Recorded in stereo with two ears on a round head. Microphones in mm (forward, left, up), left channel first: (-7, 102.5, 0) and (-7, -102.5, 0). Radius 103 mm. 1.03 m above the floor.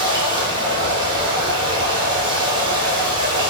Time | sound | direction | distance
0.0 | running water | 20° right (ahead or behind) | 1.0 m